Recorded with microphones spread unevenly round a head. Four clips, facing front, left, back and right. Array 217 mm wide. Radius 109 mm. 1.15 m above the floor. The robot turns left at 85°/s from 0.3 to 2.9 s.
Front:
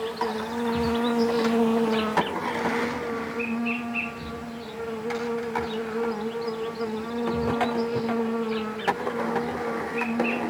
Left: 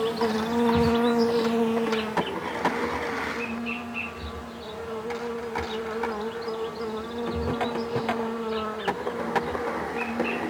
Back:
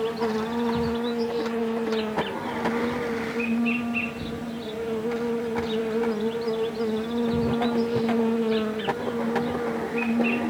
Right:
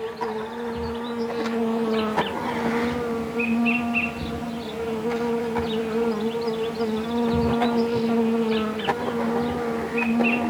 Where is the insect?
110° left, 0.8 m; by 10.5 s 115° right, 0.8 m.